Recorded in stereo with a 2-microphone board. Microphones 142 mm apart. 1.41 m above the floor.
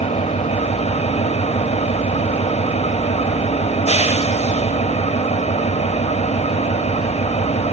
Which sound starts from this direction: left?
An engine running, at 0.0 s.